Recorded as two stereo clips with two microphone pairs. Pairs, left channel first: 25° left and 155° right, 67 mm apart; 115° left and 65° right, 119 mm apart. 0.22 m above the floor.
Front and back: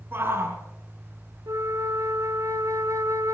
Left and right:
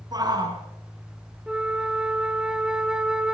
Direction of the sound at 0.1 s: 110° right.